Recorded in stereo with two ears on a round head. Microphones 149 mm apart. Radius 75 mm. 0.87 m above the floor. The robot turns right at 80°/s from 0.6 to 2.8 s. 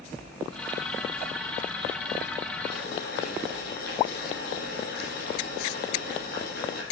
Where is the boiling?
75° left (ahead or behind), 5 m; by 6.8 s 70° left (ahead or behind), 5 m.